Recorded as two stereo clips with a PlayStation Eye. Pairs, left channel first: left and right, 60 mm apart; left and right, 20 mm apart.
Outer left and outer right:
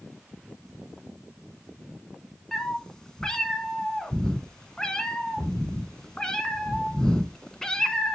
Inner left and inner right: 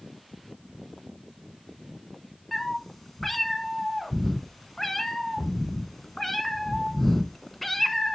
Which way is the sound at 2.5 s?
10° left (ahead or behind).